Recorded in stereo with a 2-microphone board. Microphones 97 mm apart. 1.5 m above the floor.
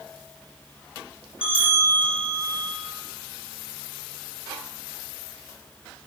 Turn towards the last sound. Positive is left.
turn(degrees=70)  # may be behind; listen again after turning